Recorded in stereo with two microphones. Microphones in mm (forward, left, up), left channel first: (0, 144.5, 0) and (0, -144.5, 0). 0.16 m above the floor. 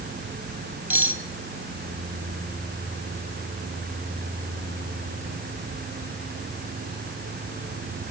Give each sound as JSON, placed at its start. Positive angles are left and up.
{"t": 0.9, "sound": "cutlery clinking", "side_deg": -5, "distance_m": 2.5}